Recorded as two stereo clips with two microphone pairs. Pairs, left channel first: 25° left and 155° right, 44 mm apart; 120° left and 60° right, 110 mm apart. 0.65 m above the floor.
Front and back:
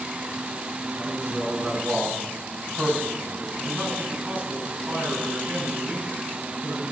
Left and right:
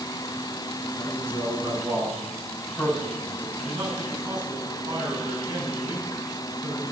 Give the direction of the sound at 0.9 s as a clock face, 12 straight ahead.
4 o'clock.